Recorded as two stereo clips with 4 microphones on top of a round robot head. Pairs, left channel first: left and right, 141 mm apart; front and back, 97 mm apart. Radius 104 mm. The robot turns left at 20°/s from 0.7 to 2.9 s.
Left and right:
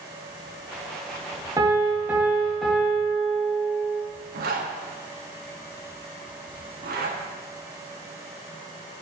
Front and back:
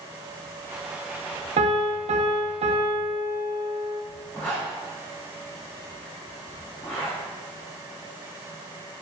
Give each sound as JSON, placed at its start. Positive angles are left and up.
{"t": 1.6, "sound": "a piano", "azimuth_deg": -160, "distance_m": 1.3}
{"t": 4.3, "sound": "a zipper", "azimuth_deg": -80, "distance_m": 1.5}